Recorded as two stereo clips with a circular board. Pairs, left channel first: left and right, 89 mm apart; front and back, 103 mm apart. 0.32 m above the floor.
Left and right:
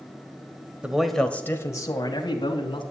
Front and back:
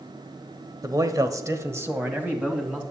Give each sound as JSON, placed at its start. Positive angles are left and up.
{"t": 0.8, "sound": "a man speaking", "azimuth_deg": -160, "distance_m": 1.3}